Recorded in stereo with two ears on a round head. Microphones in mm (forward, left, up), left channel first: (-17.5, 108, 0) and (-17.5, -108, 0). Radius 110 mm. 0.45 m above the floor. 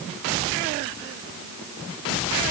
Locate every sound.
Only background noise.